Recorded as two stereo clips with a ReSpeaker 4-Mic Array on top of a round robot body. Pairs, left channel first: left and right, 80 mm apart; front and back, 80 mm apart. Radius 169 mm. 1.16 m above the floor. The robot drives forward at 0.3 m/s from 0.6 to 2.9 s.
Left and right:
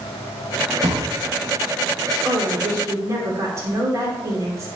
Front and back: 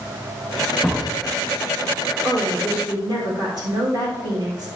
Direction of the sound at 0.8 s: 90° right.